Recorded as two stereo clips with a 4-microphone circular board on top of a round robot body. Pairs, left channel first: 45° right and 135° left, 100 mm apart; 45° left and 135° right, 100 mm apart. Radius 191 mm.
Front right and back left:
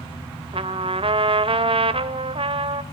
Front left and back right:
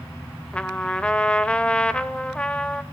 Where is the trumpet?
125° left, 1.5 m.